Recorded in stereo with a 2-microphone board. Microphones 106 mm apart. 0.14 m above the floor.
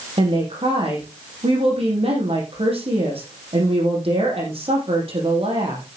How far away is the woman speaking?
About 7.5 m.